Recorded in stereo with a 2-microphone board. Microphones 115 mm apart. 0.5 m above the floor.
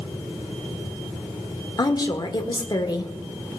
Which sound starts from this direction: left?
A woman speaking, at 1.8 s.